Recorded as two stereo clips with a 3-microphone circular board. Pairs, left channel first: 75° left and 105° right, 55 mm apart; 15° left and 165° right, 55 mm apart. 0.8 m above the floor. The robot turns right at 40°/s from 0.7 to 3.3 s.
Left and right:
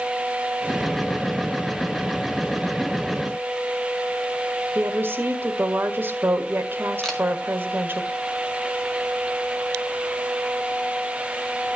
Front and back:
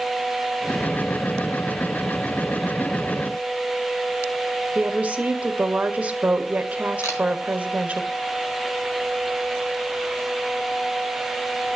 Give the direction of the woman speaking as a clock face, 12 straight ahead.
4 o'clock.